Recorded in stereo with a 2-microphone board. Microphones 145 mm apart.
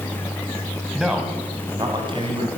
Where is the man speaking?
Centre (ahead or behind), 2 m; by 2.5 s 45° right (ahead or behind), 2.5 m.